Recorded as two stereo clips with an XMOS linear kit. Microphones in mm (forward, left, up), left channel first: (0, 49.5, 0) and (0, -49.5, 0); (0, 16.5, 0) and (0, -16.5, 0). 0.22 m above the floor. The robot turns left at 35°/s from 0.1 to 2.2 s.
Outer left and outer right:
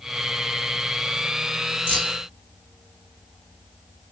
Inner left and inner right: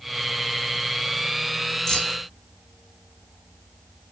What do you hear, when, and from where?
1.9 s keys jangling: 20° left (ahead or behind), 1.3 m; by 2.2 s 10° left (ahead or behind), 1.3 m